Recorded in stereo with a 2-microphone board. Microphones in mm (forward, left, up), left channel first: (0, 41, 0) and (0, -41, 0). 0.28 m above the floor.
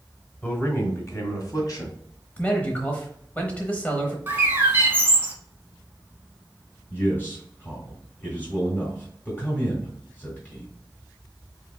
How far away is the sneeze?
I don't hear a sneeze.